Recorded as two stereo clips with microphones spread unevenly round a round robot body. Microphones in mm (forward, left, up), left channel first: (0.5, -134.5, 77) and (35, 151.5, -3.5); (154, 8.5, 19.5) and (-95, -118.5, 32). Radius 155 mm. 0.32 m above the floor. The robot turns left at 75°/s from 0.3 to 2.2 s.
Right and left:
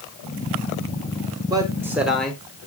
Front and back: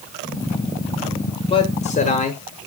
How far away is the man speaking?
About 1.2 m.